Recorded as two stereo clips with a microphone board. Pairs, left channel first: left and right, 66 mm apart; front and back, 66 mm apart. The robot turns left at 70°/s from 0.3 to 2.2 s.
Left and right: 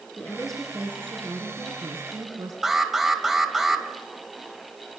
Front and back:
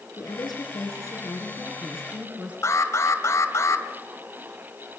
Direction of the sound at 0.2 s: 20° left.